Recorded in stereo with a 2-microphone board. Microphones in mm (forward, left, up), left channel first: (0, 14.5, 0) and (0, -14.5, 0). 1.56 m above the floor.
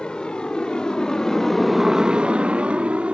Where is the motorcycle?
45° left (ahead or behind); by 3.1 s 55° right (ahead or behind).